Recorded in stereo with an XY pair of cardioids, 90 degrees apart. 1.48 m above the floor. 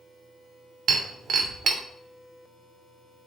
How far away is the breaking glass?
About 2.5 m.